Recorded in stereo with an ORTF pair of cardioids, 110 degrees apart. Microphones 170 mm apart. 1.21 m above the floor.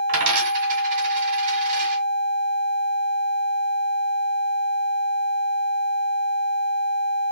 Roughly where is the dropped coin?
Ahead right.